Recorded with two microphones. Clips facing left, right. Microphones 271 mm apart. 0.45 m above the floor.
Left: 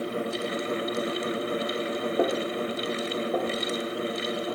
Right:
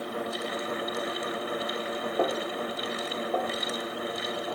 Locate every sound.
2.2 s a snare drum: 25° left (ahead or behind), 4 m